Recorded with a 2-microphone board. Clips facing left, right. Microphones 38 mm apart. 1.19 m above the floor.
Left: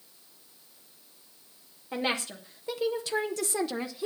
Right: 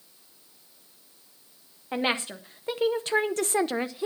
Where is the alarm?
No alarm in this recording.